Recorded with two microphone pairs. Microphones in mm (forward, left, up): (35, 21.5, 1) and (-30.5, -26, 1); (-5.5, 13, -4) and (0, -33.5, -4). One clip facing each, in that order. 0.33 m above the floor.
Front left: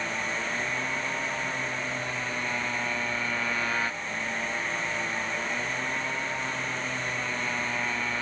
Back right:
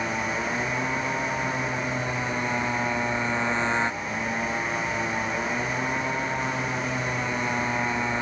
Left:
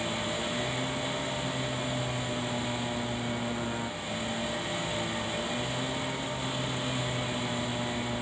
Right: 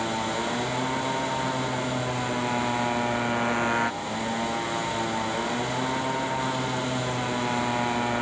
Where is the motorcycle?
80° right.